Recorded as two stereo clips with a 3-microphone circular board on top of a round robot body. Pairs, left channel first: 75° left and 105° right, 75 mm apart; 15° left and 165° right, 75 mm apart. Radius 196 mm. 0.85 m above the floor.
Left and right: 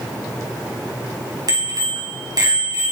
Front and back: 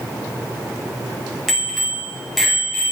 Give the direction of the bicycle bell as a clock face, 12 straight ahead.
2 o'clock.